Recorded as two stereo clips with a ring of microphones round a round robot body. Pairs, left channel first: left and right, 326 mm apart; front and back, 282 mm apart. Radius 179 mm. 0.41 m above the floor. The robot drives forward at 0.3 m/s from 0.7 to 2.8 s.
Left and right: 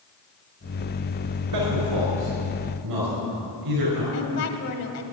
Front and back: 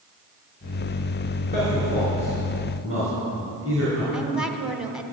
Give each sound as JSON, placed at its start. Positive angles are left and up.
{"t": 1.5, "sound": "a man speaking", "azimuth_deg": -115, "distance_m": 4.5}
{"t": 4.1, "sound": "a woman speaking", "azimuth_deg": 95, "distance_m": 1.4}